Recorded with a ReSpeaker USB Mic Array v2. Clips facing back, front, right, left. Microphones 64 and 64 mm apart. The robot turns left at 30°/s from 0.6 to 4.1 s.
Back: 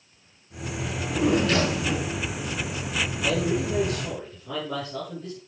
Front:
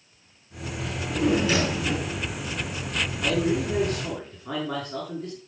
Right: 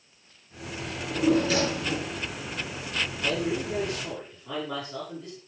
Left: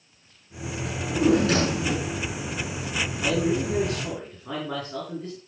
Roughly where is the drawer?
Left.